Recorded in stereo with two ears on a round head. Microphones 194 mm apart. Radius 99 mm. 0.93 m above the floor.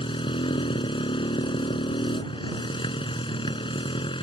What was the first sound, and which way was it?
A motorcycle, 25° left (ahead or behind).